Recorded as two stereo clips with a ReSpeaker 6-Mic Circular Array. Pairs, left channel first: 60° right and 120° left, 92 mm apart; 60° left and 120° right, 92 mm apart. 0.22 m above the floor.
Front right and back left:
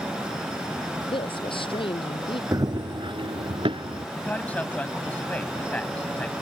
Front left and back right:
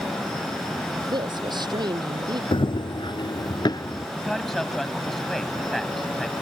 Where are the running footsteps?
70° left; by 4.0 s 105° left.